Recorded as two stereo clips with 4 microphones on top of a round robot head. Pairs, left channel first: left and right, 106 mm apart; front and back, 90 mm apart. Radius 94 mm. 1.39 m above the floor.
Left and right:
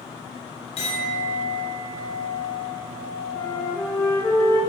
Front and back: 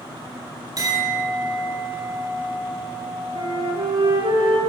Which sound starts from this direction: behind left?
A clink, at 0.8 s.